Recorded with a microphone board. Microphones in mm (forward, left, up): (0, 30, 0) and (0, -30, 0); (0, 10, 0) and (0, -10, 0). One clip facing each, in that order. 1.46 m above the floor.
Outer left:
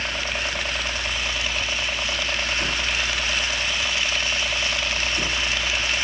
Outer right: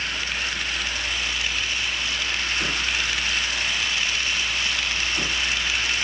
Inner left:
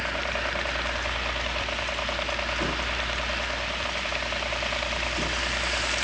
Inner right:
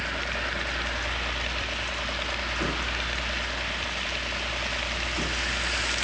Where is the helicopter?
55° left (ahead or behind).